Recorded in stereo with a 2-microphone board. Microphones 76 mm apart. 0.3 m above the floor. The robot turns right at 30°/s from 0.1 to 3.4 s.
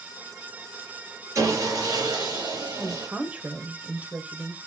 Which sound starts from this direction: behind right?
Sawing, at 1.4 s.